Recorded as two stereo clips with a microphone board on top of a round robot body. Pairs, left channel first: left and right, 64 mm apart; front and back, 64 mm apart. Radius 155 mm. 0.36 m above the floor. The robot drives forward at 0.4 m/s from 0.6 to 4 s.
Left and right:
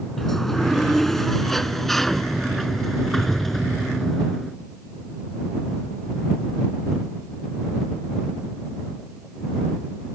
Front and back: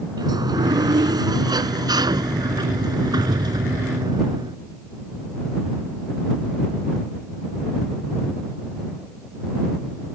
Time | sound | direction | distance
0.2 | a sliding door | 175° left | ?